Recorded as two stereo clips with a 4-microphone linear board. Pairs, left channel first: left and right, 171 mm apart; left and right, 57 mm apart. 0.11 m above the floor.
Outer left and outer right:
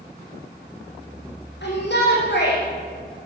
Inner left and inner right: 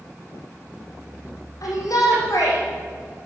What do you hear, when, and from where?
1.6 s a shout: 70° left (ahead or behind), 6 m